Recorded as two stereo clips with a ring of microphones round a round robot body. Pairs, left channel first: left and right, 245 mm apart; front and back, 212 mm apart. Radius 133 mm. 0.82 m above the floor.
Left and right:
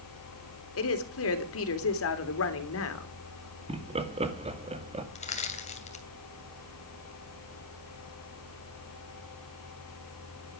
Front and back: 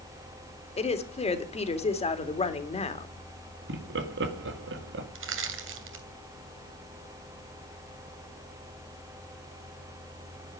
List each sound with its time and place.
0.8 s a woman speaking: 60° left, 3 m
3.7 s laughter: 155° right, 2 m
5.2 s crushing: 155° left, 2.5 m